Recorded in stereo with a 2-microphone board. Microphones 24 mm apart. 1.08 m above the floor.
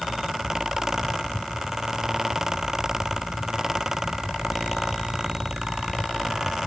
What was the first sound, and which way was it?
Only background noise.